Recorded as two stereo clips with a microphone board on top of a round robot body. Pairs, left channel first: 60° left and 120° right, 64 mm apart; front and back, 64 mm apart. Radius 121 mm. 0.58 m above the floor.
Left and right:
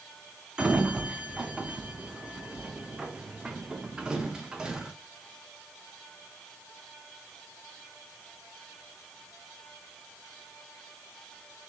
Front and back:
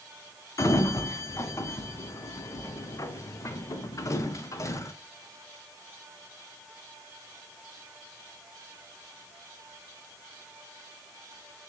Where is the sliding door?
40° right, 0.5 m.